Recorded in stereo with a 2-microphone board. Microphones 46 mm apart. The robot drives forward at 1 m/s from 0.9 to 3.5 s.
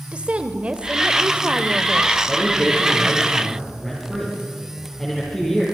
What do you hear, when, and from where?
0.1 s a woman speaking: 25° right (ahead or behind), 1.4 m; by 2.2 s 20° right (ahead or behind), 1.6 m
2.3 s a man speaking: centre (ahead or behind), 6 m